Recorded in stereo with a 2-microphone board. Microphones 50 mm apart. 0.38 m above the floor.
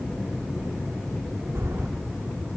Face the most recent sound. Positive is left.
turn(degrees=-80)